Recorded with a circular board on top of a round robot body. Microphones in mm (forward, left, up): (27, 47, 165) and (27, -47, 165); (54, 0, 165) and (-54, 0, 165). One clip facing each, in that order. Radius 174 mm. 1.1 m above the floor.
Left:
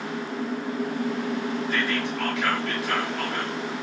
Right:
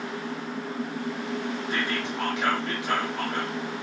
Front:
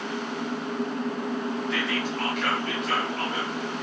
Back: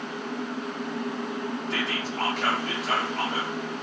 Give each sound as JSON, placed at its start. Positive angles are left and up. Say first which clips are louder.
{"t": 1.7, "sound": "whispering", "louder": "left 2 dB, front 2 dB", "azimuth_deg": -145, "distance_m": 0.8}